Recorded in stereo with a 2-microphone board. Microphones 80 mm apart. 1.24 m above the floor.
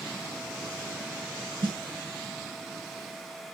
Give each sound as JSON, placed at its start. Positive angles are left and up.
{"t": 1.6, "sound": "a snare drum", "side_deg": -80, "distance_m": 3.5}